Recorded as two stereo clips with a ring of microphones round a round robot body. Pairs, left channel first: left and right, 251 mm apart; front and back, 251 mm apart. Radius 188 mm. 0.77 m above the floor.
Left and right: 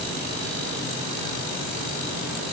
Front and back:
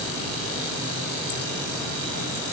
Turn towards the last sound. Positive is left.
No sound to turn to.